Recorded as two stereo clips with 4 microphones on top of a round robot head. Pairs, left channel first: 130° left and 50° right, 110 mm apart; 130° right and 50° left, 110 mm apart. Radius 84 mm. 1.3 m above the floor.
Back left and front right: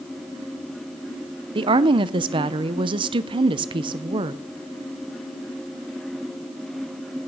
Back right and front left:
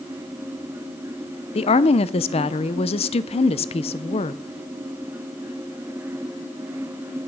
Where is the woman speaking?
95° right, 0.6 m.